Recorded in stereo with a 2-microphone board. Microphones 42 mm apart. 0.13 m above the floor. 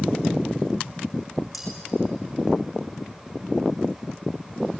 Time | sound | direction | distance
1.5 | cutlery clinking | 5° right (ahead or behind) | 5 m